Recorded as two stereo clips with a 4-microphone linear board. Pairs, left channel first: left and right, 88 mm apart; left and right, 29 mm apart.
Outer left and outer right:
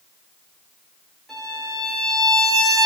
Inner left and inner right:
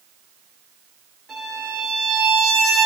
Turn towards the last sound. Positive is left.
turn(degrees=5)  # may be behind; listen again after turning